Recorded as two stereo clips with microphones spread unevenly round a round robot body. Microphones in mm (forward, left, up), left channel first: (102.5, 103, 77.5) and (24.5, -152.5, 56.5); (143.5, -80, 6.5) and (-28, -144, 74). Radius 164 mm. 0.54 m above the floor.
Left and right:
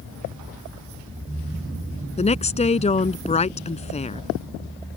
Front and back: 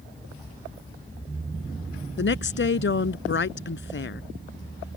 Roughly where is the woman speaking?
Ahead.